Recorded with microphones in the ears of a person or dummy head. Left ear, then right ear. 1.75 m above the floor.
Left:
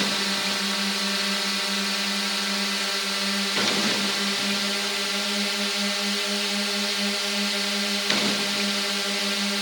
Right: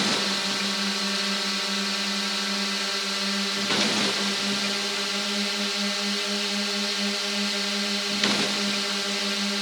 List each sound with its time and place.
0.0 s a drone: 15° left (ahead or behind)